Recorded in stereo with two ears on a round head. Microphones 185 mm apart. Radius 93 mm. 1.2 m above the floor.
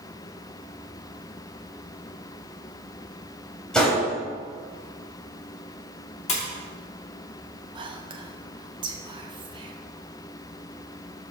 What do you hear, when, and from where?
3.7 s a gunshot: 5° left (ahead or behind), 3.5 m
6.3 s a splash: 35° left (ahead or behind), 2.5 m
7.8 s whispering: 25° right (ahead or behind), 1.1 m